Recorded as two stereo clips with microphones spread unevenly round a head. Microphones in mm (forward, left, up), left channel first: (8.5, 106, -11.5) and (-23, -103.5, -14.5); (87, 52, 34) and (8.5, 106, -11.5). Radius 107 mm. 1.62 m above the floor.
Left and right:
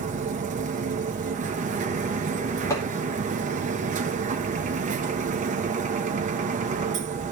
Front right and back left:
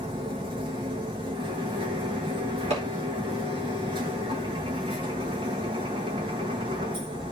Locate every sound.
0.0 s a machine running: 145° right, 1.0 m
2.7 s hammering: 160° left, 4 m